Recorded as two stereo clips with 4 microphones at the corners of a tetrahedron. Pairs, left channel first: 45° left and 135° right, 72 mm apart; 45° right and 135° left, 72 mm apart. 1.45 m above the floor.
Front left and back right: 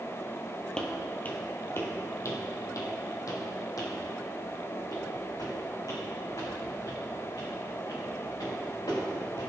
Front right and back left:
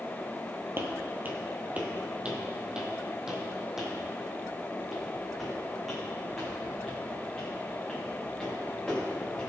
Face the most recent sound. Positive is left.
turn(degrees=40)